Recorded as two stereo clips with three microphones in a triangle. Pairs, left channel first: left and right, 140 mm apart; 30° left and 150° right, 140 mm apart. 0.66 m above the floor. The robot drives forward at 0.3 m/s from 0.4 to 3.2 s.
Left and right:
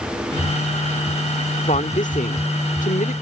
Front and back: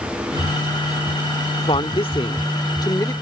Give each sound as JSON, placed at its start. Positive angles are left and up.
{"t": 1.7, "sound": "a woman speaking", "azimuth_deg": 70}